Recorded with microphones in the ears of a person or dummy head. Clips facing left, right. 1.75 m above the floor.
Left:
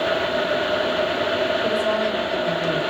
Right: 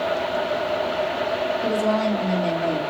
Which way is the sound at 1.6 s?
40° right (ahead or behind).